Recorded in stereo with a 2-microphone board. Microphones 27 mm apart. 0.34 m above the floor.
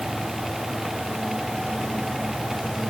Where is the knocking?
I don't hear knocking.